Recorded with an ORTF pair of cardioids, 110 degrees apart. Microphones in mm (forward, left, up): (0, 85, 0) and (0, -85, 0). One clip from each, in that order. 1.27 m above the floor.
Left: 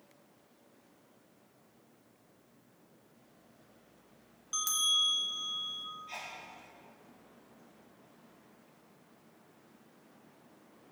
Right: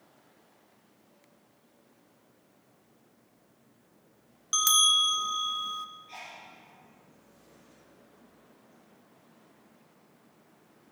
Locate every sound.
4.5 s a bell: 50° right, 0.9 m
6.1 s a sneeze: 65° left, 6.5 m